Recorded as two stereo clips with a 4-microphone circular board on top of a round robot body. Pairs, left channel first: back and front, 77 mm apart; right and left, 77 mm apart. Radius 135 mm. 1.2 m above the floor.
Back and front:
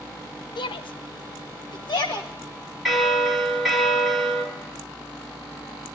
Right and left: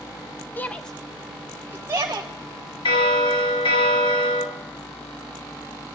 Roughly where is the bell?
Right.